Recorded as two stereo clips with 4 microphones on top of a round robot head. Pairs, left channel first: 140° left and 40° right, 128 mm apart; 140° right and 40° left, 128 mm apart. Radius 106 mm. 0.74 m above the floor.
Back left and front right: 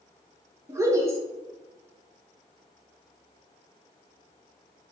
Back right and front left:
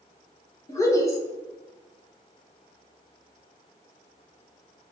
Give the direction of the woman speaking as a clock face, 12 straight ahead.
3 o'clock.